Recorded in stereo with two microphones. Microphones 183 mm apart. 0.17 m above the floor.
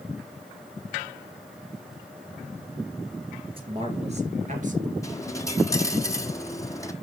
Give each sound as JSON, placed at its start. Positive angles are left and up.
{"t": 3.5, "sound": "a man speaking", "side_deg": -30, "distance_m": 3.0}
{"t": 5.0, "sound": "a dropped coin", "side_deg": 15, "distance_m": 1.4}